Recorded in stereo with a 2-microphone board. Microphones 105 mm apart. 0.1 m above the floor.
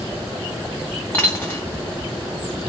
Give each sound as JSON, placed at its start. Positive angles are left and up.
{"t": 1.1, "sound": "a dropped coin", "side_deg": 15, "distance_m": 1.3}